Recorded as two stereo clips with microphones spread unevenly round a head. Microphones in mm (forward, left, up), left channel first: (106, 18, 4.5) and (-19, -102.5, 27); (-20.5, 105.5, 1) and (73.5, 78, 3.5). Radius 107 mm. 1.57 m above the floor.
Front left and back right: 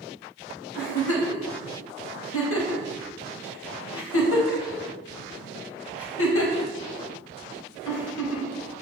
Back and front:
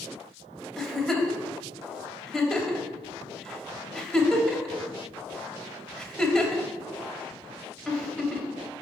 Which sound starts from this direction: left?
A giggle, at 0.8 s.